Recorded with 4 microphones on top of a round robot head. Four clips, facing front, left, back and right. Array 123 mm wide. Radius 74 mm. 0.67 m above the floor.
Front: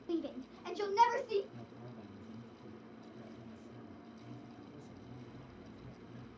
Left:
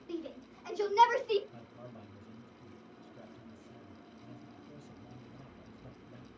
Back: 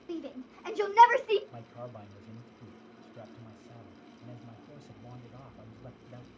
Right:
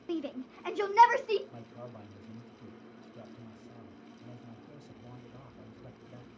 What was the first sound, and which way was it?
A shout, 80° right.